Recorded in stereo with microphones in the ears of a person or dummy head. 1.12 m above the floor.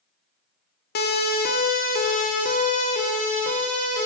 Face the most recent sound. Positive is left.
turn(degrees=40)  # may be behind; listen again after turning